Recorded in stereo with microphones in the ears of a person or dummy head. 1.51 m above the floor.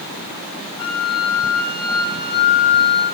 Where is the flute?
30° left (ahead or behind), 2 m.